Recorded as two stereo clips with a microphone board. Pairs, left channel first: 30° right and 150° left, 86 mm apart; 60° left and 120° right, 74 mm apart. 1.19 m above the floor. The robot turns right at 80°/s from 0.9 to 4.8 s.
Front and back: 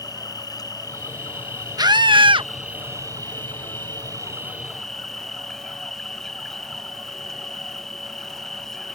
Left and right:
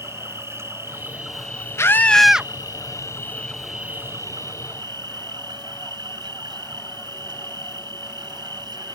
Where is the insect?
70° right; by 9.0 s 115° right.